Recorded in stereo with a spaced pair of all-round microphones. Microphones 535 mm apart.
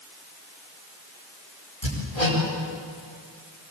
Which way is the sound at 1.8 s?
90° left.